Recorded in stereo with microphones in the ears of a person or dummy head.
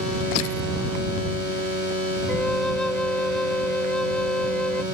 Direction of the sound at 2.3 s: 5° left (ahead or behind).